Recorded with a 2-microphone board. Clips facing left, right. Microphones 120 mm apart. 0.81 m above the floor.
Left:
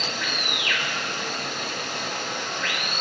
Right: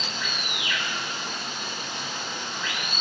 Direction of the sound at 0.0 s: 70° left (ahead or behind).